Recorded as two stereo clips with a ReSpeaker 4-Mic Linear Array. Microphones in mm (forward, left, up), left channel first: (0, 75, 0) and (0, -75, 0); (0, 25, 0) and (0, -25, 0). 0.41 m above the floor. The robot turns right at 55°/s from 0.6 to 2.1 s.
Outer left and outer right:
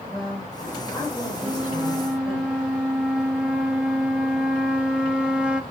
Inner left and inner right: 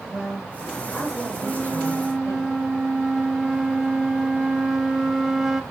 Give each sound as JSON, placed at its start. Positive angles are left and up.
{"t": 0.1, "sound": "a woman speaking", "azimuth_deg": -5, "distance_m": 9.5}
{"t": 1.4, "sound": "a flute", "side_deg": -15, "distance_m": 1.3}